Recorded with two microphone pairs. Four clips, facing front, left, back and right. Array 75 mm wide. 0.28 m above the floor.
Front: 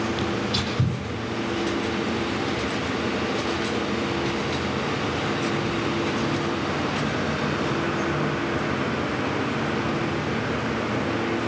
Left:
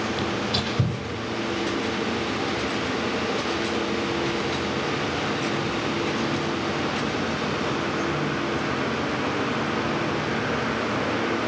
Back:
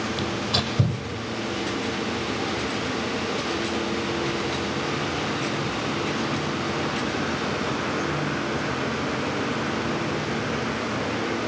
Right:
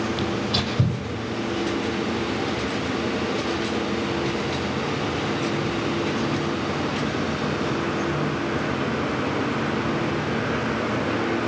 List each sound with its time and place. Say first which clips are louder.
0.2 s tearing paper: right 1 dB, front 1 dB; 170° right, 7 m